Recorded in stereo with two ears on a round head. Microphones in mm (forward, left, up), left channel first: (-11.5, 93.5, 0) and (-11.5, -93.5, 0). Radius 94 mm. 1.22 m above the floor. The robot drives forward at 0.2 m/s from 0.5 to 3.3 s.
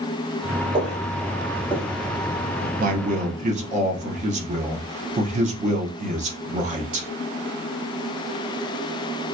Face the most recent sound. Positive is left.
turn(degrees=-35)  # may be behind; listen again after turning